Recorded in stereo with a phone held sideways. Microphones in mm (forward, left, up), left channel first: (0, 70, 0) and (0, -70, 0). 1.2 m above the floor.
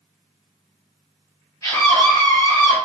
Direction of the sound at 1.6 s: 25° left (ahead or behind).